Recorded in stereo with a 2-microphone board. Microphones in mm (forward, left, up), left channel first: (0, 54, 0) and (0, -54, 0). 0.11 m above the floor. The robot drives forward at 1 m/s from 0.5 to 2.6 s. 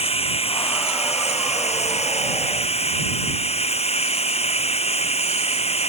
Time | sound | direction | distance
0.0 | running water | 65° left (ahead or behind) | ?